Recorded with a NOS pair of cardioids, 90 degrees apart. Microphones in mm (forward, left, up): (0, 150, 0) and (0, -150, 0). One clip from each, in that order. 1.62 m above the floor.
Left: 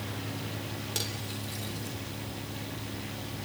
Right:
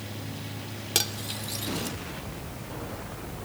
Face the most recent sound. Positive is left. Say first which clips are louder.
# right 9 dB
turn(degrees=-60)